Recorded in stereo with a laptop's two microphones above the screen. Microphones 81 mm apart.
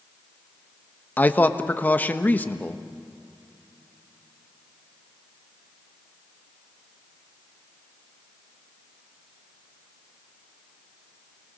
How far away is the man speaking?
About 1.2 m.